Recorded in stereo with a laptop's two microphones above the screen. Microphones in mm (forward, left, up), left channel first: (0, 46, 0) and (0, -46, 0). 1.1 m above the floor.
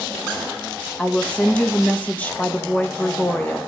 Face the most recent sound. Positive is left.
turn(degrees=15)  # may be behind; listen again after turning